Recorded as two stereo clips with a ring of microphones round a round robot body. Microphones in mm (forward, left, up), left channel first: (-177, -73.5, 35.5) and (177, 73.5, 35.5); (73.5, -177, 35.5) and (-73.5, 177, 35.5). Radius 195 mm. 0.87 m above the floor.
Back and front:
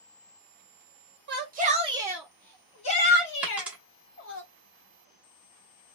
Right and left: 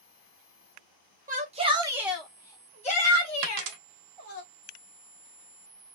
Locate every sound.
1.3 s a shout: 60° left, 1.1 m; by 4.4 s 115° right, 1.6 m
3.4 s a dropped coin: 110° left, 0.8 m